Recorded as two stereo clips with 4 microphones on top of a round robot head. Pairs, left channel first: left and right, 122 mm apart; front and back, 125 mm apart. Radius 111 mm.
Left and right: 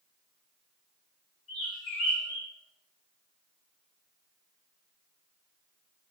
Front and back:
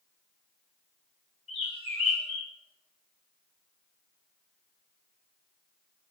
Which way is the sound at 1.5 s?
40° left.